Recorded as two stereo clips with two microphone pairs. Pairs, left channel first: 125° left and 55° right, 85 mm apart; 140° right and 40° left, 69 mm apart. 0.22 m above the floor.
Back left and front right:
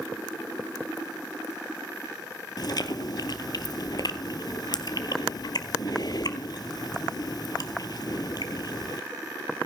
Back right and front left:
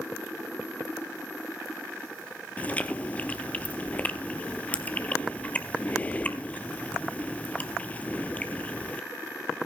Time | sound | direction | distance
2.6 | chewing | 155° left | 0.8 m